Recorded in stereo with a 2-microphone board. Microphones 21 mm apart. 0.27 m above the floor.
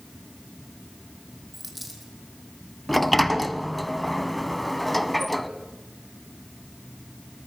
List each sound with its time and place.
1.5 s a dropped coin: 5° right (ahead or behind), 3 m
2.9 s a sliding door: centre (ahead or behind), 0.8 m